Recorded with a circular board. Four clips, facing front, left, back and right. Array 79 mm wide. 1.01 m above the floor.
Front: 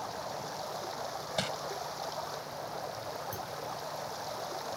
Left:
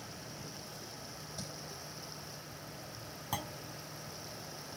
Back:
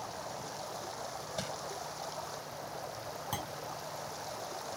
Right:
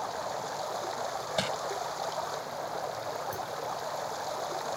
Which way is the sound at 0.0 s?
80° right.